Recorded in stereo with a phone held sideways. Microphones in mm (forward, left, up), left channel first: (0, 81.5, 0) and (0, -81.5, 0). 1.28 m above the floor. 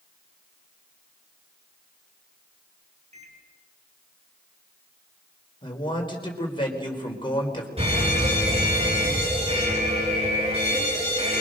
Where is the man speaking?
30° left (ahead or behind), 5 m.